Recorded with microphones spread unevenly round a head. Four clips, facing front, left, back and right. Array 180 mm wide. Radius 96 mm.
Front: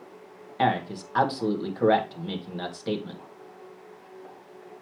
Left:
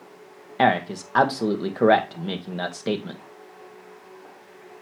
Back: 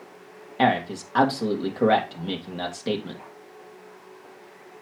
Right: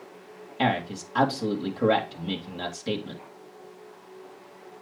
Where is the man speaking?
110° left, 2 m.